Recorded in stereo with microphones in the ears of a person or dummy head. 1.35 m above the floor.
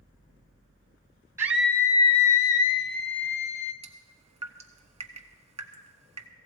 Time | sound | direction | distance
1.4 | a scream | 15° right (ahead or behind) | 0.5 m
3.8 | dripping | 30° right (ahead or behind) | 1.0 m